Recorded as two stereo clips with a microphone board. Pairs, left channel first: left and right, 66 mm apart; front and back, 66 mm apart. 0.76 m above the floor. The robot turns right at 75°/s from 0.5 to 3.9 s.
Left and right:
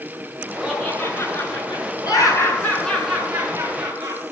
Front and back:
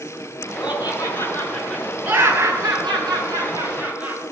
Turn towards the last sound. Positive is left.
turn(degrees=-110)